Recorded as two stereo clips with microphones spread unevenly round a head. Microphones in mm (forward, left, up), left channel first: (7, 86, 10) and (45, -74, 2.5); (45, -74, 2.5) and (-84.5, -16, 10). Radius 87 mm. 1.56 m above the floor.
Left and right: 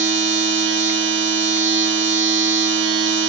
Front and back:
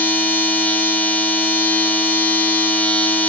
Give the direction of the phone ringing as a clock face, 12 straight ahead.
No phone ringing in this recording.